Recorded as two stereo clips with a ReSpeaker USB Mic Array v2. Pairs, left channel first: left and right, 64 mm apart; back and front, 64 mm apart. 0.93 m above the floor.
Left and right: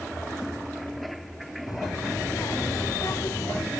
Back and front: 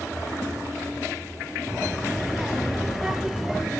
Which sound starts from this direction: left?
A child speaking, at 1.7 s.